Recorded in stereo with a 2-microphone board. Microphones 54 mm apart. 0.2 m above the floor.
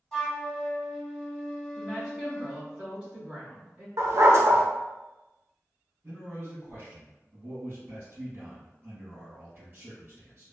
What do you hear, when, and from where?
0.1 s a flute: 10° left (ahead or behind), 1.2 m
1.8 s a woman speaking: 15° right (ahead or behind), 1.8 m
4.0 s a dog barking: 65° right (ahead or behind), 0.6 m
6.0 s a man speaking: 40° right (ahead or behind), 2.0 m